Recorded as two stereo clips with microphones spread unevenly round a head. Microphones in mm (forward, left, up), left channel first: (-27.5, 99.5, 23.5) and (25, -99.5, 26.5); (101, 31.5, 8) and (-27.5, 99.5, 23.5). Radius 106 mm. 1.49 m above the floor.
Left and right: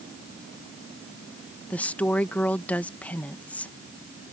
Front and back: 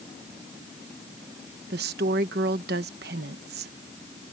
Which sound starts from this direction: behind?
A woman speaking, at 1.7 s.